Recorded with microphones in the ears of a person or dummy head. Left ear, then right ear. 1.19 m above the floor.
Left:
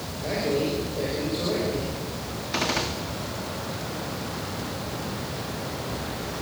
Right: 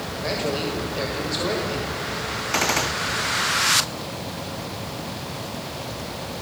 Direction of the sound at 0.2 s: 70° right (ahead or behind).